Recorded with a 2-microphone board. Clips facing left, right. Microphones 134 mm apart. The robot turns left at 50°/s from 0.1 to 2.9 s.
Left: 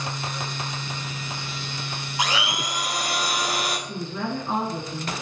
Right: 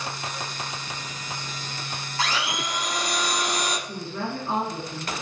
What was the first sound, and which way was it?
A blender, 15° left (ahead or behind).